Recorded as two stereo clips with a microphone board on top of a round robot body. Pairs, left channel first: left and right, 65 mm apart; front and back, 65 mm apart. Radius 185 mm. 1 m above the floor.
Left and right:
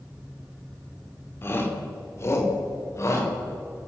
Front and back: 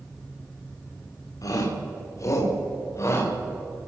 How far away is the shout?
About 3 m.